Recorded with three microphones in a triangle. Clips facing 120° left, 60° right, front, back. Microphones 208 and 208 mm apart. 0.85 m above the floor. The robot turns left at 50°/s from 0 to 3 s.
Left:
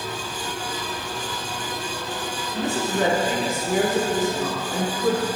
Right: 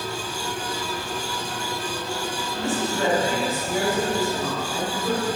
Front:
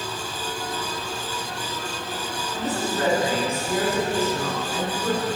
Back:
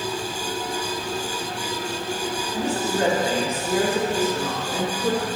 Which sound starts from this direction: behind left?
A woman speaking, at 2.5 s.